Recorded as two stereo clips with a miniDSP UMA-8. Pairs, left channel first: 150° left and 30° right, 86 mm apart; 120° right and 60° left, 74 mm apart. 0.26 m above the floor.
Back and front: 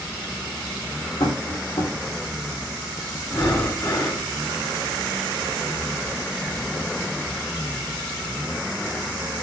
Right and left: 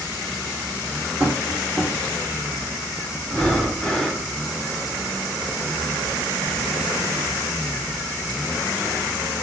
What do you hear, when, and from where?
1.2 s tapping: 130° left, 3.5 m
3.2 s breathing: 160° left, 1.5 m